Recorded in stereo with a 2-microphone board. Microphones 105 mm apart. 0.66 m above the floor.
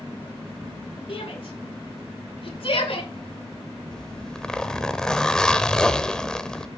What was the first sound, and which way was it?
A shout, 60° left (ahead or behind).